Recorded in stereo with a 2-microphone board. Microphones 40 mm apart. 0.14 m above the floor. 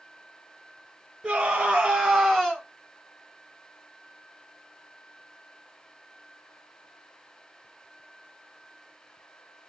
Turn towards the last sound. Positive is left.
turn(degrees=15)  # may be behind; listen again after turning